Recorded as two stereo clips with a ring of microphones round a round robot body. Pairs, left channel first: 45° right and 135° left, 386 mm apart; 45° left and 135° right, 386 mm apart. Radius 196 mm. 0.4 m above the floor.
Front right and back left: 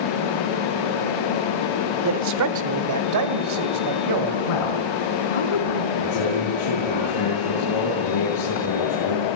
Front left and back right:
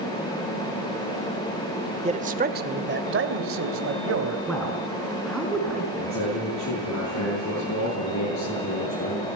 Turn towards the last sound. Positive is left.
turn(degrees=-5)